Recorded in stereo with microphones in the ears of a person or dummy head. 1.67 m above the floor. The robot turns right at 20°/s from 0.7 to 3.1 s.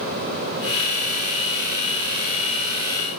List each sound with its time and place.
Only background noise.